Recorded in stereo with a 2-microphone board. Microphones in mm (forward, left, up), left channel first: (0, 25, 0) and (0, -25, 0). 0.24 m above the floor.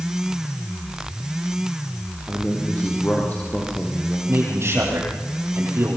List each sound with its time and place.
2.3 s a man speaking: 30° left (ahead or behind), 5.5 m
4.3 s a man speaking: 60° right (ahead or behind), 9 m